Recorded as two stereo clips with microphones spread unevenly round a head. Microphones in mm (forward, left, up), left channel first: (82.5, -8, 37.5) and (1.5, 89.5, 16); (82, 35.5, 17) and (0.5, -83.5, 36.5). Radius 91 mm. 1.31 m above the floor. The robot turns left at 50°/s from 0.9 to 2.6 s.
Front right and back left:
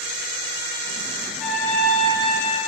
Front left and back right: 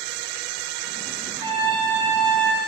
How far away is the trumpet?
About 4.5 m.